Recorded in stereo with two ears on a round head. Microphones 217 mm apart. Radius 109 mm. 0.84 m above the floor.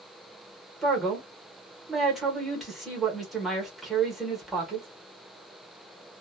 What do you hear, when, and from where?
0.8 s a man speaking: centre (ahead or behind), 1.0 m